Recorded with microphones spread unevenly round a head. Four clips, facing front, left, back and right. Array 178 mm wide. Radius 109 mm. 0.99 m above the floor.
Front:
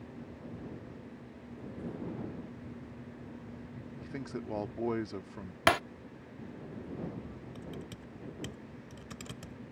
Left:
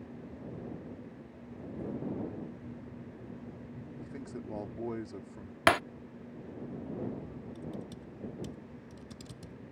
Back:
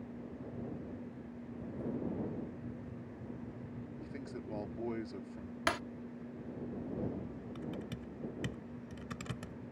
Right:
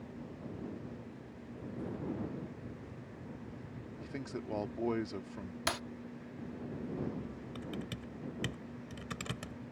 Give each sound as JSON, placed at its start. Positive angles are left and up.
{"t": 4.0, "sound": "a man speaking", "azimuth_deg": -35}
{"t": 5.7, "sound": "breaking glass", "azimuth_deg": 50}
{"t": 7.5, "sound": "typing on a keyboard", "azimuth_deg": -85}